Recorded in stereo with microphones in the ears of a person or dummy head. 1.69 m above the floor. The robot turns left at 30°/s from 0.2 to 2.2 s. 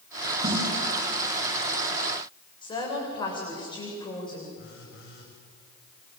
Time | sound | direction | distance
0.4 | a snare drum | 30° right (ahead or behind) | 5 m
2.6 | a woman speaking | 30° left (ahead or behind) | 7.5 m
4.6 | a phone buzzing | 65° left (ahead or behind) | 6 m